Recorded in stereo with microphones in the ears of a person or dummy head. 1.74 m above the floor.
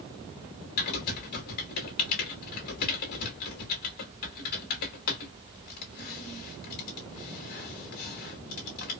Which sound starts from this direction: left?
Typing on a keyboard, at 0.8 s.